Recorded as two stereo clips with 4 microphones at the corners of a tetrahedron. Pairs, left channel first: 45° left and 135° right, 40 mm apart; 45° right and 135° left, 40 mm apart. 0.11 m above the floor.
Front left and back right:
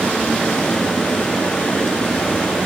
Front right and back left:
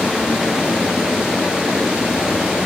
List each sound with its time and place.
0.0 s running water: 75° left, 1.5 m